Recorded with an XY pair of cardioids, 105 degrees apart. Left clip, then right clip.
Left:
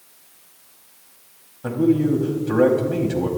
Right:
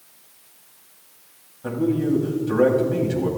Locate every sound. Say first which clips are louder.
1.6 s a man speaking: left 3 dB; 30° left, 4 m